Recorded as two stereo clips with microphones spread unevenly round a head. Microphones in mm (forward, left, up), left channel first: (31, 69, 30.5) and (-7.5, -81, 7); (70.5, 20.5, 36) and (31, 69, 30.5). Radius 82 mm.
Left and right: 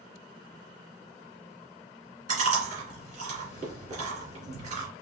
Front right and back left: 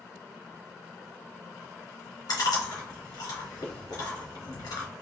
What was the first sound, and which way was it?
Chewing, 60° right.